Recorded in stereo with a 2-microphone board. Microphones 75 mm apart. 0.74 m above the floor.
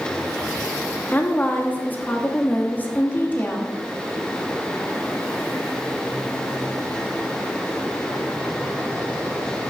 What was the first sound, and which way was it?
A woman speaking, 25° left (ahead or behind).